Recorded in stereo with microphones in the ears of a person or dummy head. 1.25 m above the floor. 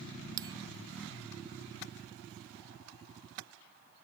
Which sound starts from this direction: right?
A bell, at 0.4 s.